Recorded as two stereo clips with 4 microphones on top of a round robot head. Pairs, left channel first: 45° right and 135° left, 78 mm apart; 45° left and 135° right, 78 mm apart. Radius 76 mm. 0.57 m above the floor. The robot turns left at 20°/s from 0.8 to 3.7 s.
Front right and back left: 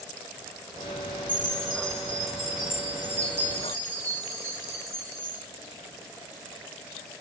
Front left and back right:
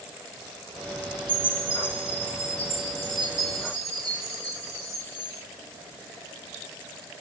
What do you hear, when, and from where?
1.3 s a chime: 120° right, 3.5 m; by 5.5 s 170° right, 3.5 m